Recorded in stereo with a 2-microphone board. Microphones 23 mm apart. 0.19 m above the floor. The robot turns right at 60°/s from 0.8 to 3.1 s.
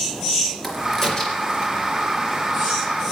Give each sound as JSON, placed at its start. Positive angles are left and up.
{"t": 0.6, "sound": "a crack", "side_deg": 10, "distance_m": 3.5}